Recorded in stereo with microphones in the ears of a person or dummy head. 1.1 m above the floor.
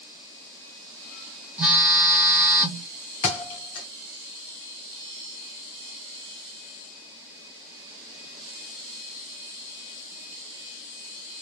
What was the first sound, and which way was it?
A phone buzzing, 10° right (ahead or behind).